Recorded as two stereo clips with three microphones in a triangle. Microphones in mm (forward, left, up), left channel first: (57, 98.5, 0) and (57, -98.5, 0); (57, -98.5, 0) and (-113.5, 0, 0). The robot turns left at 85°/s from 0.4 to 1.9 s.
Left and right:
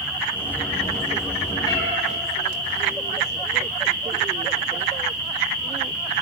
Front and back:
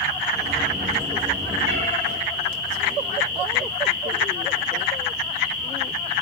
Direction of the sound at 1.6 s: 165° left.